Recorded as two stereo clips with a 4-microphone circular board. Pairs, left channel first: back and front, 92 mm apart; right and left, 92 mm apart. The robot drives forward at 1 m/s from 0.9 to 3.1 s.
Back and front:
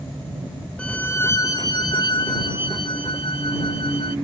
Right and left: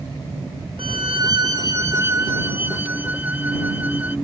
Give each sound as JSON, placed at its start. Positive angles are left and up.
{"t": 0.8, "sound": "a violin", "azimuth_deg": 105}